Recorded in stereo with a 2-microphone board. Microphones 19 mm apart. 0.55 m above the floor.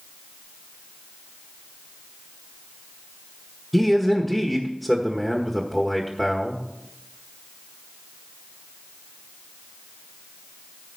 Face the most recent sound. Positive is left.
turn(degrees=-5)  # may be behind; listen again after turning